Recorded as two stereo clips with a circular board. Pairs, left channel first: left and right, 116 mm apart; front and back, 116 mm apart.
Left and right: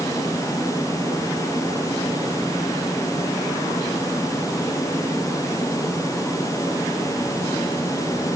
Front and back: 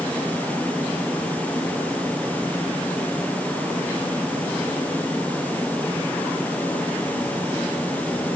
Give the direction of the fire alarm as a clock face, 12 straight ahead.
No fire alarm in this recording.